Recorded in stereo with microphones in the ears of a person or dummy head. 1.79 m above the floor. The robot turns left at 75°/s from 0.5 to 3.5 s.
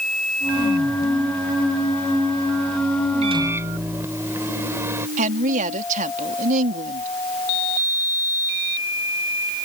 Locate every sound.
3.2 s a microwave: 35° right (ahead or behind); by 5.1 s 15° right (ahead or behind)
5.2 s a woman speaking: 40° right (ahead or behind)